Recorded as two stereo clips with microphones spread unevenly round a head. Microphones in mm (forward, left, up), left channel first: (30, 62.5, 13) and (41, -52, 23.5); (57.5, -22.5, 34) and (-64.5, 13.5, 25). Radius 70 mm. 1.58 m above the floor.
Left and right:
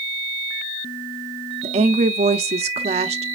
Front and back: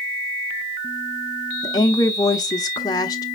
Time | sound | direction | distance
1.6 | a woman speaking | 75° right | 0.7 m